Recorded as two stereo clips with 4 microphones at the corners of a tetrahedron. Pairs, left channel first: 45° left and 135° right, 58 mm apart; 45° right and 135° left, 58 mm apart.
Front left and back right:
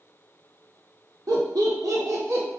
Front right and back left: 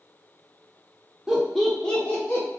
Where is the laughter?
145° right, 1.2 m; by 2.5 s 100° right, 1.3 m.